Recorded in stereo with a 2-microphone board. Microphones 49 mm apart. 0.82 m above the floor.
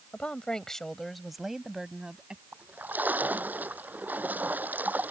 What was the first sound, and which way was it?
A woman speaking, 25° left (ahead or behind).